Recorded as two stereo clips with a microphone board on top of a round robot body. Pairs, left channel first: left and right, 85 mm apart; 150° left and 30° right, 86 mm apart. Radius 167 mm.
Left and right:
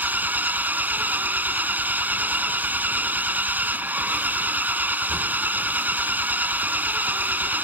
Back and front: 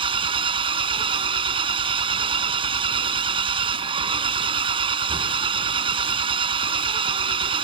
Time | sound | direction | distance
0.0 | an engine running | 20° right | ?